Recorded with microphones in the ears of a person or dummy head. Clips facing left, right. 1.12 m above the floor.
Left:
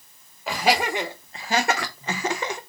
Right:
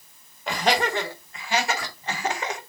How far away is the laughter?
About 0.9 m.